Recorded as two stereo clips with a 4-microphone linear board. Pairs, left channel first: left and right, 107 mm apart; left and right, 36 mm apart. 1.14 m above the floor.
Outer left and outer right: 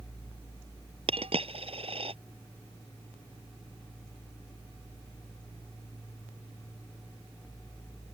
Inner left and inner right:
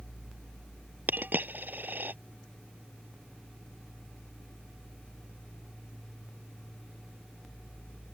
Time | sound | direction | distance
1.1 | a dropped coin | 65° right (ahead or behind) | ?